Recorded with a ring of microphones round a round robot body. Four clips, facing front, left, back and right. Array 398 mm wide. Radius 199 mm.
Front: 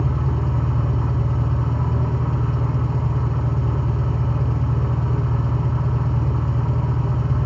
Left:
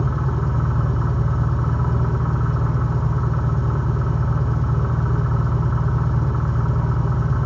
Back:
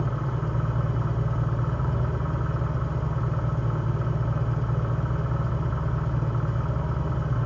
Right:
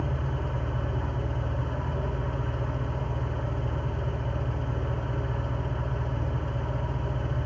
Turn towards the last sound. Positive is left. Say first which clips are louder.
# left 8 dB, front 5 dB
turn(degrees=45)